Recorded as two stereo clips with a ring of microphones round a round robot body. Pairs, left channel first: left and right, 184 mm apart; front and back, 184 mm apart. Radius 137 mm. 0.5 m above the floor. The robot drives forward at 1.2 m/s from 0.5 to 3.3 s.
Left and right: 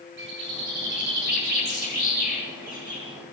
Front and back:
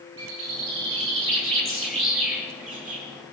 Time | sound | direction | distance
0.2 | a bird | 140° right | 7.5 m